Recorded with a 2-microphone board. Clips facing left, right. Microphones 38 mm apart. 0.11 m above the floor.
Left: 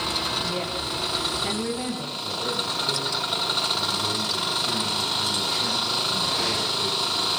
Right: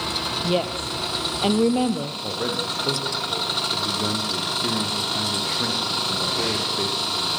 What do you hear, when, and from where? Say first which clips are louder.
0.4 s a woman speaking: right 4 dB; 65° right (ahead or behind), 3.5 m
2.2 s a man speaking: right 1 dB; 75° right (ahead or behind), 9 m